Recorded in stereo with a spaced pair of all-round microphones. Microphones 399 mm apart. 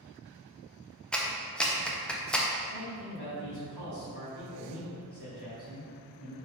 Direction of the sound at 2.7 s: 70° left (ahead or behind).